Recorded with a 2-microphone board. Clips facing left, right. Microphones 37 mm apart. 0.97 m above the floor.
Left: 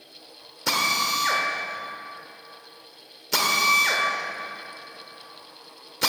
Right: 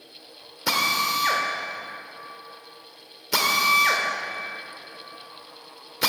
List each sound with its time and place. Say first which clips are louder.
0.7 s a drill: right 1 dB; 10° right (ahead or behind), 1.2 m